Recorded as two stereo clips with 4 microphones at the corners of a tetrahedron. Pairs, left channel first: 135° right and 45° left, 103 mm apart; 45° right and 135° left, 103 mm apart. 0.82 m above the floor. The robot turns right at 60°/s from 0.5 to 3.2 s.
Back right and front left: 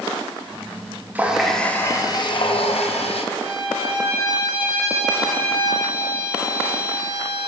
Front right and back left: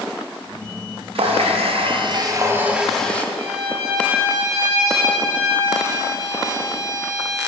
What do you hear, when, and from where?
1.1 s a running tap: 115° left, 0.5 m; by 3.2 s 120° right, 0.5 m
3.4 s a violin: 80° left, 1.7 m